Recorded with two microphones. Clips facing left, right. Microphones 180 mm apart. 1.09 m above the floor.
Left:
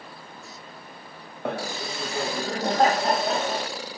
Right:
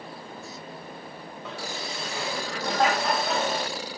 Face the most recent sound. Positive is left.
turn(degrees=35)  # may be behind; listen again after turning